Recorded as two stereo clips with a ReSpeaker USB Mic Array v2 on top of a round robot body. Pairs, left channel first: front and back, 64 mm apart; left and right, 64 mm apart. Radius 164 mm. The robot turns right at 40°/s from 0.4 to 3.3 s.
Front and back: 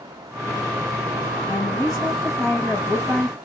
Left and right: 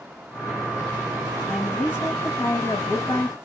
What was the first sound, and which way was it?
A woman speaking, 20° left.